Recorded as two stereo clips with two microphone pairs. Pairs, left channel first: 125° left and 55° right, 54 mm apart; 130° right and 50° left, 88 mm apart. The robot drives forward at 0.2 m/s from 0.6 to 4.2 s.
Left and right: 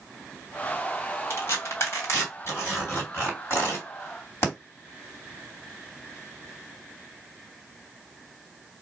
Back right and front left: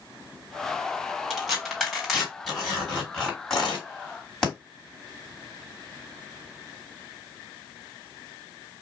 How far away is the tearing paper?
About 1.9 m.